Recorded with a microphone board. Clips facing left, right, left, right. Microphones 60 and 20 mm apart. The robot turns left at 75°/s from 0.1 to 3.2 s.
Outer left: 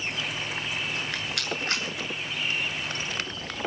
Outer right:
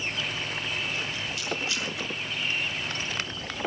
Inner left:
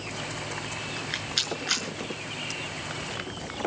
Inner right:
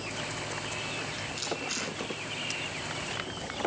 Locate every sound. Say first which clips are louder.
1.0 s a rattle: outer left 1 dB, inner left 6 dB; 70° left (ahead or behind), 7 m; by 1.9 s 40° left (ahead or behind), 7 m